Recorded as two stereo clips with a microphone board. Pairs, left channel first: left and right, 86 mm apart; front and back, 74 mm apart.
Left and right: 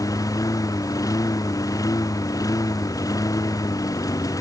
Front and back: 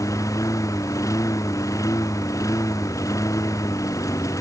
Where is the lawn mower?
45° left.